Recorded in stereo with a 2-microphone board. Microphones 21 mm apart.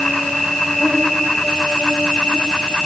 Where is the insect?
75° left (ahead or behind), 6 m.